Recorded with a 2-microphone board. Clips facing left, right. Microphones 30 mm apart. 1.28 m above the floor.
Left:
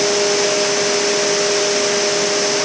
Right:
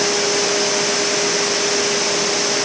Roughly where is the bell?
I don't hear a bell.